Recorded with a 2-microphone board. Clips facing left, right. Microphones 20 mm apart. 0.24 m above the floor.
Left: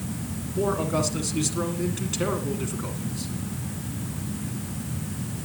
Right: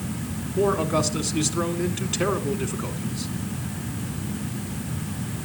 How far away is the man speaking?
About 2.0 m.